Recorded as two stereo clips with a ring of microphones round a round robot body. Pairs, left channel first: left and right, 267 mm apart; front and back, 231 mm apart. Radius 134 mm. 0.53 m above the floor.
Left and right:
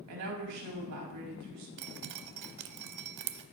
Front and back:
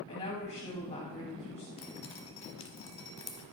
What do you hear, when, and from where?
0.1 s a woman speaking: 70° right, 3.5 m
1.8 s dripping: 70° right, 0.7 m